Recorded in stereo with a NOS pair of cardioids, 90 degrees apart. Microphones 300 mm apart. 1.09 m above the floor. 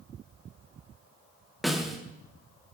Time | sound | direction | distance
1.6 | a snare drum | straight ahead | 2.5 m